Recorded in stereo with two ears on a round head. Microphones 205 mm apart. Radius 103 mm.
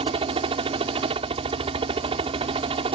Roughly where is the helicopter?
Right.